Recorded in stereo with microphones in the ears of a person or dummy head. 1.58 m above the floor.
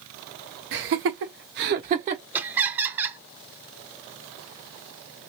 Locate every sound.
0.7 s laughter: 65° right (ahead or behind), 1.0 m; by 2.2 s 35° right (ahead or behind), 0.9 m
2.3 s laughter: 10° right (ahead or behind), 0.5 m